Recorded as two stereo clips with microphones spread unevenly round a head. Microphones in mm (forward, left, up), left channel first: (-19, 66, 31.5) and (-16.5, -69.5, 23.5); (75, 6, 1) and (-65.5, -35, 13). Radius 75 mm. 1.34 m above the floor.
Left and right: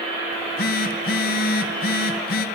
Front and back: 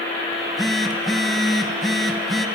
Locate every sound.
0.3 s a phone buzzing: 105° left, 0.9 m